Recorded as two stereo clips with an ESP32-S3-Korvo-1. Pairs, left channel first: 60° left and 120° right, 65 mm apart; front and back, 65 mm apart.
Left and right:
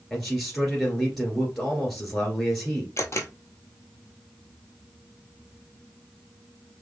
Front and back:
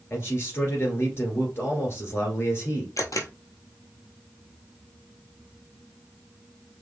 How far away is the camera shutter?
About 0.8 m.